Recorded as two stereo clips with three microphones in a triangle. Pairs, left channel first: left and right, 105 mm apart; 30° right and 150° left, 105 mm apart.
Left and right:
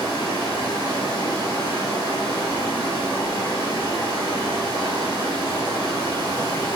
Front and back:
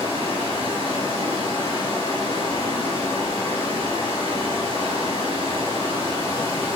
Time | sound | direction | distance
0.0 | running water | 135° left | 1.3 m